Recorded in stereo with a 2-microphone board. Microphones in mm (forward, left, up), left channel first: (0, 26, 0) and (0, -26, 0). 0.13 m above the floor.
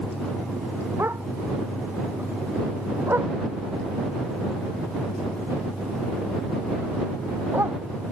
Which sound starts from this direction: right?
A dog barking, at 1.0 s.